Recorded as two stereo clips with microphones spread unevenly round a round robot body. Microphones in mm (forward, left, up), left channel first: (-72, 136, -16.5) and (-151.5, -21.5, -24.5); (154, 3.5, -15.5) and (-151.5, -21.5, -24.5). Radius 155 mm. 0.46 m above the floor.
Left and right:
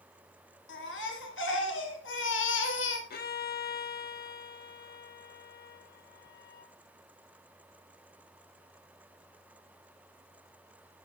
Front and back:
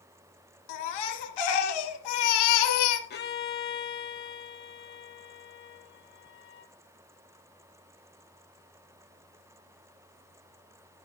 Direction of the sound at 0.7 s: 15° left.